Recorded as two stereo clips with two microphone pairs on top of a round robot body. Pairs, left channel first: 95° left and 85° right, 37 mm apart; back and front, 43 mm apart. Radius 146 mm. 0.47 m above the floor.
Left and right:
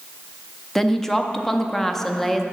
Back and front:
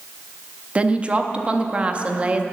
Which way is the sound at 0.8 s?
30° left.